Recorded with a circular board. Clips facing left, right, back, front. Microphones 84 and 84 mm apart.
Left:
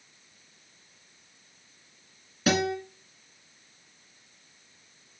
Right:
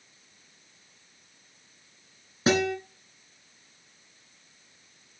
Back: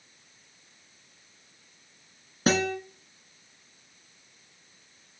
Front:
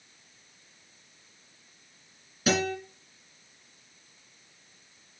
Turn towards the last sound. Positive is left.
turn(degrees=-145)